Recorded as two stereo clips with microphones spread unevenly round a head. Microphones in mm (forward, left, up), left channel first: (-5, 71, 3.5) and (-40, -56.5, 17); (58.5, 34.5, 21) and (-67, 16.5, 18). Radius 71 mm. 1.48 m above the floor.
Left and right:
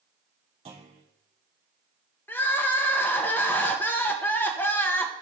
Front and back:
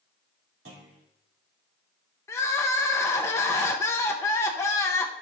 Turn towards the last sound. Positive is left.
turn(degrees=5)